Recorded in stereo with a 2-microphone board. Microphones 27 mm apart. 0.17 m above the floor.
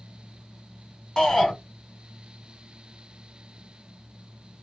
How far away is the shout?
About 1.7 m.